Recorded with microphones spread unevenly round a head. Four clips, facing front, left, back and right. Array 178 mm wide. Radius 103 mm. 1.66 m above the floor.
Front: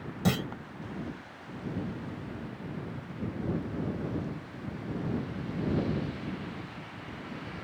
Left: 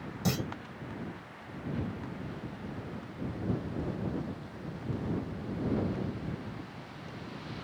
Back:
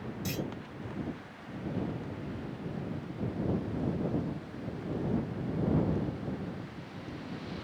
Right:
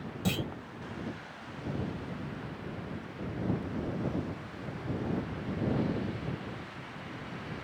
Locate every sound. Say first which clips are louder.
0.2 s a clunk: left 1 dB, front 8 dB; 10° left